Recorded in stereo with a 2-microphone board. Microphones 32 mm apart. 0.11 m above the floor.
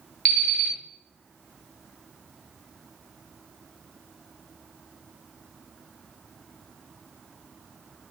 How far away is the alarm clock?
About 0.9 m.